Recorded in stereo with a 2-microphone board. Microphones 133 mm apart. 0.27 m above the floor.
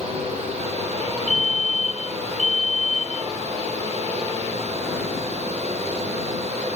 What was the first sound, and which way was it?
A fire alarm, 60° right (ahead or behind).